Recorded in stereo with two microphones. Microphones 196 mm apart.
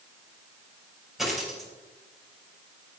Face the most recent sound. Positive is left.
turn(degrees=0)  # may be behind; listen again after turning